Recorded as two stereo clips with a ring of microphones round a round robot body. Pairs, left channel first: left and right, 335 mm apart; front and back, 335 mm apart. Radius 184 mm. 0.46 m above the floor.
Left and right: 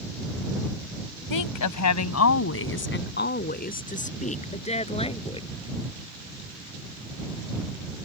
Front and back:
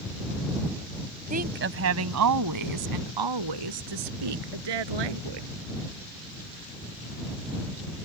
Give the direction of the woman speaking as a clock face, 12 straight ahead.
8 o'clock.